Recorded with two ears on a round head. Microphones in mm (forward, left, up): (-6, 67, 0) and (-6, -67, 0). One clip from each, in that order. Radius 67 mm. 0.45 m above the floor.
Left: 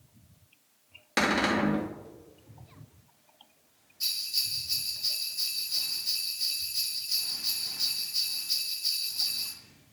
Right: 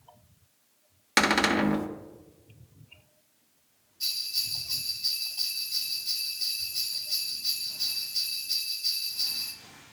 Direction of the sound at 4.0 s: 5° left (ahead or behind).